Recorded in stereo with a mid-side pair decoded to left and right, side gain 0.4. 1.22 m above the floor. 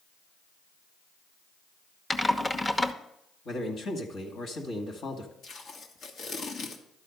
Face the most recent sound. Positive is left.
turn(degrees=70)